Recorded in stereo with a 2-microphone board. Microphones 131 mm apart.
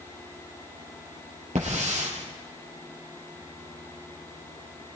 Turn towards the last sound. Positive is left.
turn(degrees=-75)  # may be behind; listen again after turning